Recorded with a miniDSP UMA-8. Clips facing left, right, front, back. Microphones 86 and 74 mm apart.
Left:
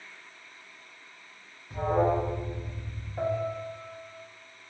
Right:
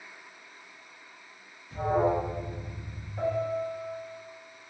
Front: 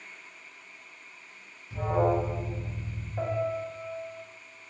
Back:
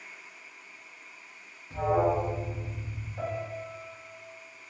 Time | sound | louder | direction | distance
1.7 | an alarm | even, back 1 dB | 110° left | 1.5 m
3.2 | a piano | right 1 dB, front 5 dB | 35° left | 0.9 m